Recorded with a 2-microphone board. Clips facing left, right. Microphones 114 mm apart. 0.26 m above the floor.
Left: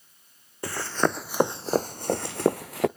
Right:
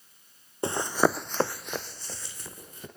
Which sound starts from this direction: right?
Running footsteps, at 0.6 s.